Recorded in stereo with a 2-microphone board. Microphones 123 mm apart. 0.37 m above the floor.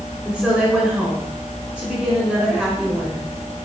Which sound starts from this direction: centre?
A woman speaking, at 0.2 s.